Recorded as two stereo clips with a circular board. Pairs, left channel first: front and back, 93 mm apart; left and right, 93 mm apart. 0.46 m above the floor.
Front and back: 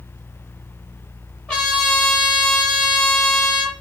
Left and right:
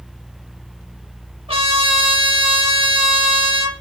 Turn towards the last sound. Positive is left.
turn(degrees=-80)